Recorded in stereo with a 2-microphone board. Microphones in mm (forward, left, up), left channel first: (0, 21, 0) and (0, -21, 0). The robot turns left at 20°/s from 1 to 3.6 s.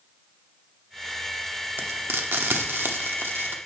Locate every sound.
1.8 s frying: 55° right (ahead or behind), 0.9 m